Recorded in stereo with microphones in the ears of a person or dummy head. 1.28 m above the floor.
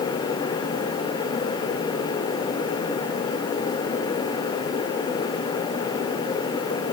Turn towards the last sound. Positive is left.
No sound to turn to.